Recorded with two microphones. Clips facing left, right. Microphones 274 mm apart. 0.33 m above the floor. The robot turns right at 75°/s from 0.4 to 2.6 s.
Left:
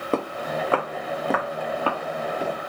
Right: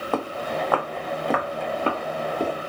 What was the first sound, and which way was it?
Footsteps, 30° left (ahead or behind).